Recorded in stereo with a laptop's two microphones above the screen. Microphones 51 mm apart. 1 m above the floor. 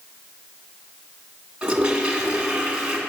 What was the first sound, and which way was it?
A toilet flushing, 15° right (ahead or behind).